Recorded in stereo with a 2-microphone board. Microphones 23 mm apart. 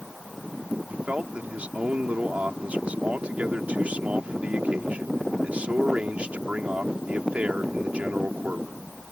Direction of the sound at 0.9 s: 70° right (ahead or behind).